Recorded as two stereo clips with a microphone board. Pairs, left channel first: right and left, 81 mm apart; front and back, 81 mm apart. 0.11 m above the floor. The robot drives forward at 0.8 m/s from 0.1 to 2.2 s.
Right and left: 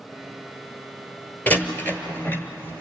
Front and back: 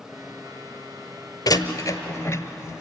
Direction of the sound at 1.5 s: 25° right.